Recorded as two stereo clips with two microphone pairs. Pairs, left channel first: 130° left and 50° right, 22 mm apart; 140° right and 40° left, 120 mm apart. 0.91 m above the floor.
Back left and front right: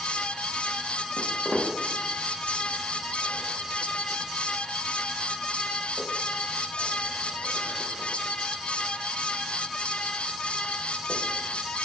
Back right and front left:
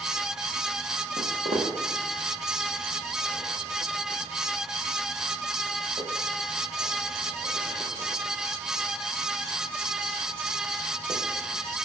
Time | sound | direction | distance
1.2 | footsteps | 30° left | 1.9 m